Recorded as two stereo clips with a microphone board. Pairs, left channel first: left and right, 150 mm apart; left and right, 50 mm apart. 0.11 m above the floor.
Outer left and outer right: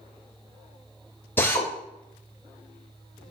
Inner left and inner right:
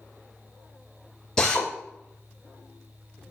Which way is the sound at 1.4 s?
15° left (ahead or behind).